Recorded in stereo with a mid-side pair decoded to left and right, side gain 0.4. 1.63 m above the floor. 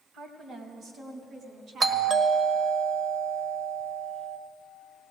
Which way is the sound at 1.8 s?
50° right.